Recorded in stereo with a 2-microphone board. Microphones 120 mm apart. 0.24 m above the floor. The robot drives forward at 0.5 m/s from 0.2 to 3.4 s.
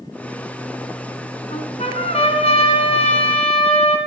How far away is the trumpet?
About 2.5 m.